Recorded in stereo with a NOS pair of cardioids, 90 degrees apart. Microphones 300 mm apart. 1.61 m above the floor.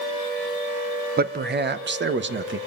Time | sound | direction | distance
1.2 | a man speaking | 30° right | 1.5 m